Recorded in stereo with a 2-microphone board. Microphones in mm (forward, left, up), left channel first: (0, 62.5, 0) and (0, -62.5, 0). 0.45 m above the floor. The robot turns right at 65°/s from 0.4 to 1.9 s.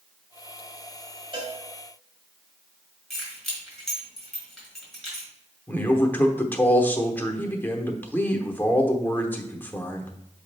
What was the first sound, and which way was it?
A cowbell, 45° right (ahead or behind).